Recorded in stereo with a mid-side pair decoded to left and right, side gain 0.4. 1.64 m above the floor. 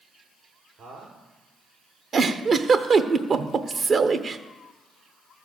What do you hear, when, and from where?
0.8 s a man speaking: 65° right, 5 m
2.1 s a giggle: 50° right, 0.9 m